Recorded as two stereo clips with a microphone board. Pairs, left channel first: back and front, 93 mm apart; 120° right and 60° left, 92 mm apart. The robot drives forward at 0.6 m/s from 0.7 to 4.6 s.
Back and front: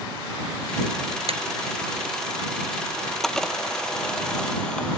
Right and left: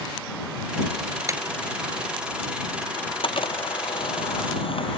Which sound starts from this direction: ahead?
A clap, at 1.3 s.